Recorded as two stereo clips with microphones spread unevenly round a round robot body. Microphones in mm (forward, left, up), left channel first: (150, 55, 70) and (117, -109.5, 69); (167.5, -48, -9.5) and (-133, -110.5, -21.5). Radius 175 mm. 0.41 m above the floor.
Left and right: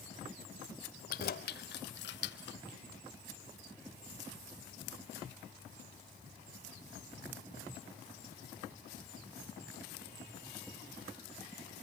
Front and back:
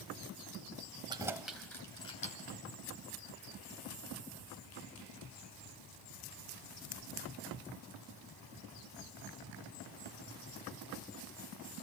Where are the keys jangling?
115° left, 1.0 m; by 2.6 s 80° left, 1.4 m.